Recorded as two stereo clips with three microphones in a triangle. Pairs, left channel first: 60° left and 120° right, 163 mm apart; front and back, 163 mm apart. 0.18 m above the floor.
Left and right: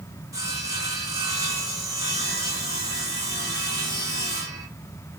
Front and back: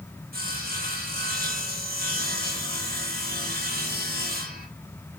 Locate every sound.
0.3 s sawing: 170° left, 6 m